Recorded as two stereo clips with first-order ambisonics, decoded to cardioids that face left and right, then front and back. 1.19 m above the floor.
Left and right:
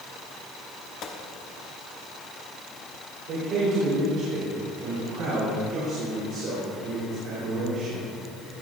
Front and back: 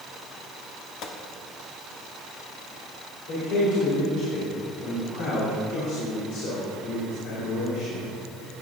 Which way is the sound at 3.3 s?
40° right.